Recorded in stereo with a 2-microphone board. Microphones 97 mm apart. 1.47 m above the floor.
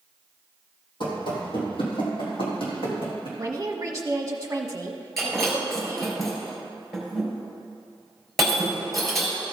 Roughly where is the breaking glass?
Centre.